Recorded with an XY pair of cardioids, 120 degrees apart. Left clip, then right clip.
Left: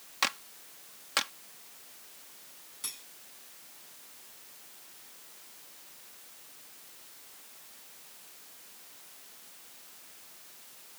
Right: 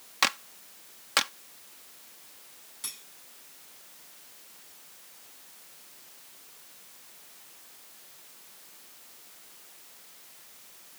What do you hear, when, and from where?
0.2 s a clap: 25° right
2.8 s cutlery clinking: 5° right